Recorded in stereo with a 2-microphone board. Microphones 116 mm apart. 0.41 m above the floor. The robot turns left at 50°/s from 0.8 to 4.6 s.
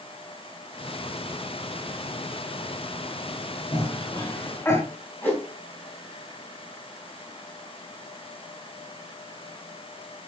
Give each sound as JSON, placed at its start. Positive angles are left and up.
{"t": 3.7, "sound": "a cough", "side_deg": 40, "distance_m": 1.0}
{"t": 5.2, "sound": "a whoosh", "side_deg": 15, "distance_m": 3.0}